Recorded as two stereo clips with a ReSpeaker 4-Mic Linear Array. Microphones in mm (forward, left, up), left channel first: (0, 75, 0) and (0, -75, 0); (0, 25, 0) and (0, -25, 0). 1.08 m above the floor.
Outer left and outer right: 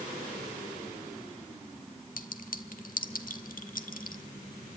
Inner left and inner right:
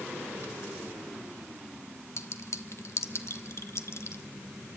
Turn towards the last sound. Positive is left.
turn(degrees=65)  # may be behind; listen again after turning